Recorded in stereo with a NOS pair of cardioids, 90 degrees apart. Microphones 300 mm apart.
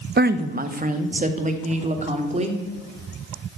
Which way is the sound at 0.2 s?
35° right.